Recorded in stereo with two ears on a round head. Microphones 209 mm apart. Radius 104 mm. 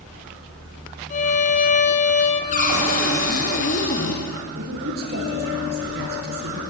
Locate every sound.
1.1 s a violin: 35° left (ahead or behind), 3 m
2.5 s a cupboard door: 35° left (ahead or behind), 5 m
4.5 s a woman speaking: 45° right (ahead or behind), 9 m